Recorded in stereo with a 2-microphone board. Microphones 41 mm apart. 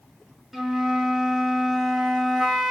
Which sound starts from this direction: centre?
A flute, at 0.5 s.